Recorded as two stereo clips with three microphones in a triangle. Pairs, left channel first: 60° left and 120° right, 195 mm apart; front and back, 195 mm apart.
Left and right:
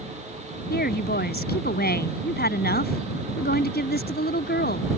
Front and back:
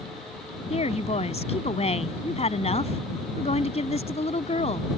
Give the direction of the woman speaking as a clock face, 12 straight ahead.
10 o'clock.